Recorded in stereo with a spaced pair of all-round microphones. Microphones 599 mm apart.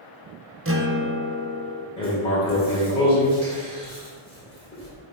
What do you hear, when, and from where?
0.7 s a guitar: 20° right (ahead or behind), 0.7 m
2.0 s writing: 10° left (ahead or behind), 2.5 m